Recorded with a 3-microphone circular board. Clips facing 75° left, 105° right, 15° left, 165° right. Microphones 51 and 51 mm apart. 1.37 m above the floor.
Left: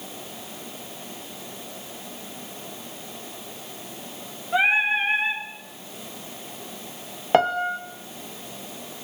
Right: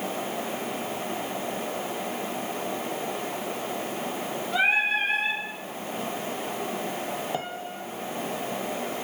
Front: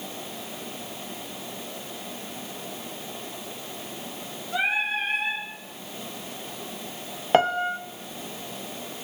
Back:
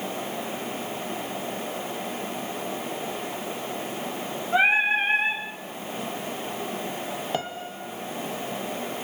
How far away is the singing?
About 5 m.